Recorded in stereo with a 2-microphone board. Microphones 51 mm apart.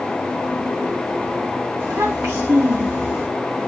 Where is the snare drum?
No snare drum in this recording.